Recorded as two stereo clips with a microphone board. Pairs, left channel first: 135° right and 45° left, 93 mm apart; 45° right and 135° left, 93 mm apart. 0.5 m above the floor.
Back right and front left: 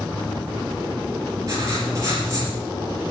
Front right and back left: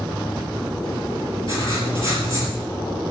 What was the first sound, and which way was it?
Writing, 10° right.